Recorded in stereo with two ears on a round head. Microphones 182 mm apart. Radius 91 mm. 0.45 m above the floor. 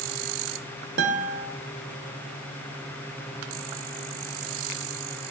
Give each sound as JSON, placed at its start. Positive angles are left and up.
{"t": 1.0, "sound": "a guitar", "side_deg": -55, "distance_m": 1.5}